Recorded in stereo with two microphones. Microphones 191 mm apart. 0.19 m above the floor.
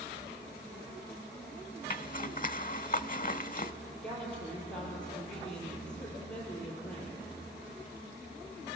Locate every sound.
1.9 s a zipper: 45° left (ahead or behind), 0.6 m
4.0 s a woman speaking: 5° left (ahead or behind), 5 m